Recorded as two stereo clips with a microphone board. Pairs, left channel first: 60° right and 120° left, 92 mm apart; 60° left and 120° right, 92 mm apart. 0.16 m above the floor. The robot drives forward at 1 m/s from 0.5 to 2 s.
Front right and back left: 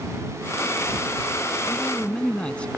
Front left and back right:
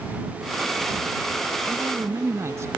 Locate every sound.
1.7 s a man speaking: 100° right; by 2.7 s 125° right